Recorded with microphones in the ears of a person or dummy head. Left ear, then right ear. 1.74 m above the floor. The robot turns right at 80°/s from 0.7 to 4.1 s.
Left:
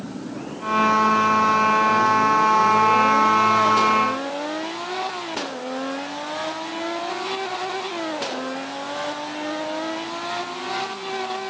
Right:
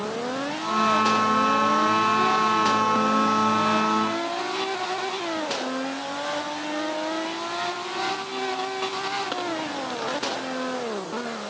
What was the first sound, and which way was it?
Only background noise.